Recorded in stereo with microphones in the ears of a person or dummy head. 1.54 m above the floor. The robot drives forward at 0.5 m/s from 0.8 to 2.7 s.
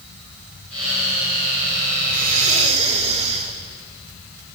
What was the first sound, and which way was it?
Breathing, 45° right (ahead or behind).